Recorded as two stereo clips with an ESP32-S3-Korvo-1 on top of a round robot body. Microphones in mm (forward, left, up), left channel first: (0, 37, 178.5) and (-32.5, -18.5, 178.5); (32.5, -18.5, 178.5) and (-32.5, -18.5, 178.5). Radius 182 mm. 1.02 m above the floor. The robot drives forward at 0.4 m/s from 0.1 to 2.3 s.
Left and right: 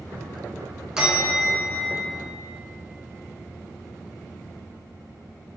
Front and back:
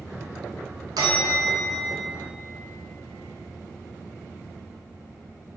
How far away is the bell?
About 0.8 m.